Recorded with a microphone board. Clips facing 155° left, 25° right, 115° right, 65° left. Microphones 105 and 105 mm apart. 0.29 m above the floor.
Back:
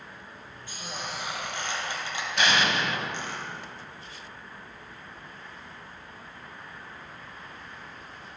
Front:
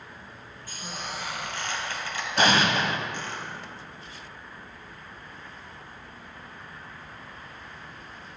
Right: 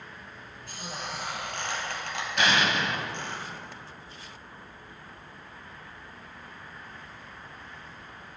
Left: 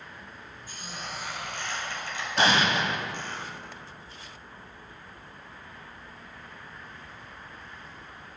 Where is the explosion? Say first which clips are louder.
Front 3 dB, left 2 dB; 20° left, 0.6 m.